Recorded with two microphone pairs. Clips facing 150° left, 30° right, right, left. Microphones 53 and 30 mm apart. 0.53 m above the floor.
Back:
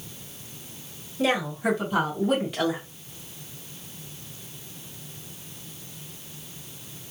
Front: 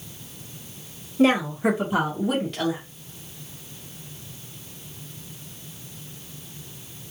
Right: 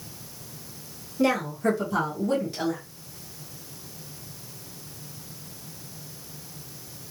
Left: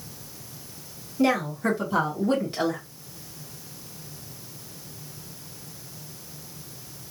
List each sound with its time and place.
1.2 s a woman speaking: straight ahead, 1.6 m; by 2.8 s 100° left, 1.2 m